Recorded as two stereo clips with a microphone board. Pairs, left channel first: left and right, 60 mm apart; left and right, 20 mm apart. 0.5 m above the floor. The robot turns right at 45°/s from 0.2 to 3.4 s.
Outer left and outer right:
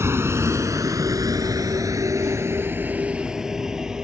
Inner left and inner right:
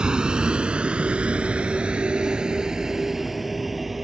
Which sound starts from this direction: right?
A vehicle, at 0.0 s.